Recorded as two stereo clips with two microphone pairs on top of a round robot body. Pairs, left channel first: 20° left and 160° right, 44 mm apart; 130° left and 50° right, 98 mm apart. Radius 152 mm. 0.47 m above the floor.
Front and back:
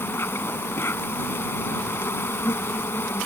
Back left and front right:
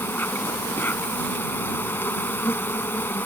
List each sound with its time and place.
0.0 s an insect: 60° left